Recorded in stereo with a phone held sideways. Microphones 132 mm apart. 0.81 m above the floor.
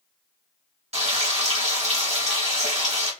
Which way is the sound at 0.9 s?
55° right (ahead or behind).